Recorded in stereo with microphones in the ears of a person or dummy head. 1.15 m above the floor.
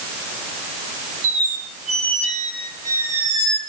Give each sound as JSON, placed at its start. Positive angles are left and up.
{"t": 1.2, "sound": "a squeak", "side_deg": -35, "distance_m": 4.0}